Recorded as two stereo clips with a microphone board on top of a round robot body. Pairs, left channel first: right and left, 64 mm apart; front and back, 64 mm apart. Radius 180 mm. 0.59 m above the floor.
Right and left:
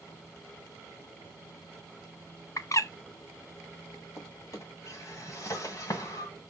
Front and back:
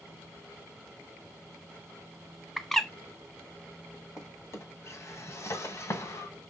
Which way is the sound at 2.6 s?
85° right.